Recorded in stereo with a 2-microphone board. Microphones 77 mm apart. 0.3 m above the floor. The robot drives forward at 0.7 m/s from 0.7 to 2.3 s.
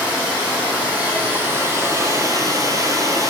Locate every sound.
0.0 s running water: 20° right (ahead or behind), 1.8 m; by 3.3 s 50° right (ahead or behind), 0.8 m